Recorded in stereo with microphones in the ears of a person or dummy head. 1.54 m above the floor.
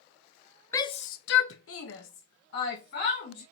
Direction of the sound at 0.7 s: 20° left (ahead or behind).